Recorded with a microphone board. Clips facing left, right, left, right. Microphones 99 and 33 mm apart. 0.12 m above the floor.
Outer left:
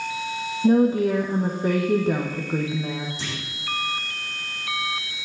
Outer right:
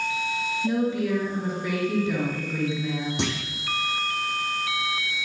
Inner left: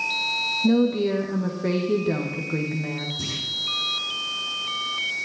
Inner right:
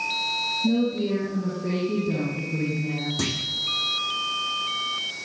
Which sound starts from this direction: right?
A clunk, at 3.2 s.